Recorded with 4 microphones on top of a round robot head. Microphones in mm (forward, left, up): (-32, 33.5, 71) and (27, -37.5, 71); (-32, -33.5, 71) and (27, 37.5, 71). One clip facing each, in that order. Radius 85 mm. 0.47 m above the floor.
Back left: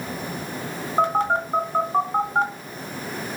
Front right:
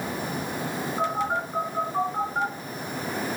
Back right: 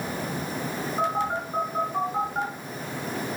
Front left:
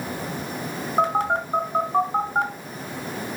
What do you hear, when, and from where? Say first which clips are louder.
1.0 s a phone buzzing: back left 7 dB, front left 6 dB; 85° left, 1.7 m